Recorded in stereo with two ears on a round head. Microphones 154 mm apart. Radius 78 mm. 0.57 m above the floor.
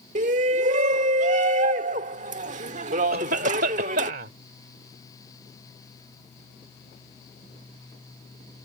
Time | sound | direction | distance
0.1 | a shout | 45° right (ahead or behind) | ?
3.1 | a cough | 60° right (ahead or behind) | ?